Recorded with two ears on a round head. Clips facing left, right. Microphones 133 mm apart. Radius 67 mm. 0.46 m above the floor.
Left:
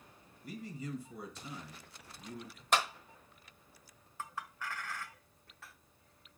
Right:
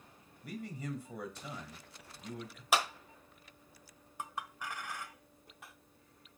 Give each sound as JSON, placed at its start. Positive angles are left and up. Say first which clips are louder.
{"t": 0.4, "sound": "a man speaking", "louder": "right 1 dB", "side_deg": -55, "distance_m": 1.9}
{"t": 2.7, "sound": "a clap", "louder": "even", "side_deg": -5, "distance_m": 1.2}
{"t": 4.2, "sound": "a clink", "louder": "right 1 dB", "side_deg": -15, "distance_m": 0.5}